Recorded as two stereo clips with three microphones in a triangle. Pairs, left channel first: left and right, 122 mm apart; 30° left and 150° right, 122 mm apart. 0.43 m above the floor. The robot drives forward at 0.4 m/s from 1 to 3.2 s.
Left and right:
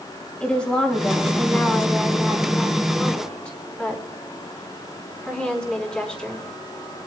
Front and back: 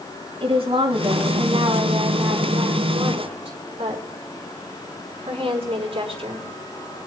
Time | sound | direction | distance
0.4 | a woman speaking | 175° left | 4.5 m